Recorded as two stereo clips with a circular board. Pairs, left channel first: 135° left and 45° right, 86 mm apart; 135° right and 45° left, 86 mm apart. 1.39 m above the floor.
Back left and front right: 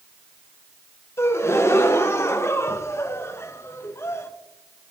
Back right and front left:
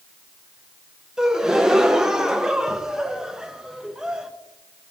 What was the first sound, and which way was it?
A gasp, 125° left.